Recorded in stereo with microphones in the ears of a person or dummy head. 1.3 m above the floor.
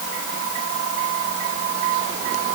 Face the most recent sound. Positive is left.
No sound to turn to.